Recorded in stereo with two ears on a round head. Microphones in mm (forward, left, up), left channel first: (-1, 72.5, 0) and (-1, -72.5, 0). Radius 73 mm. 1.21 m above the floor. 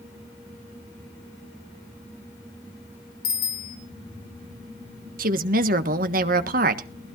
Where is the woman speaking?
55° right (ahead or behind), 1.4 m.